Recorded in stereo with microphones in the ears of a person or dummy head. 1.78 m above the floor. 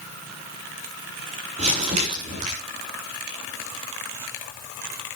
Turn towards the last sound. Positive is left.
turn(degrees=-45)  # may be behind; listen again after turning